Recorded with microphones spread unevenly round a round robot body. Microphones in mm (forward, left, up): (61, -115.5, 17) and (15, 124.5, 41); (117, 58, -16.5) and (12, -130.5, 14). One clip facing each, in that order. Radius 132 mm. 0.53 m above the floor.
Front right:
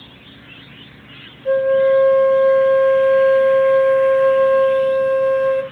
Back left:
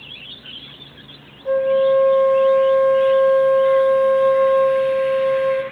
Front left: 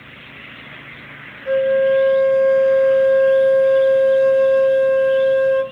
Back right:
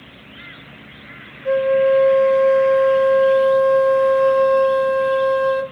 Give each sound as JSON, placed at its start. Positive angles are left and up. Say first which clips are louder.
{"t": 1.4, "sound": "a flute", "louder": "front right 2 dB, even", "azimuth_deg": -145, "distance_m": 1.1}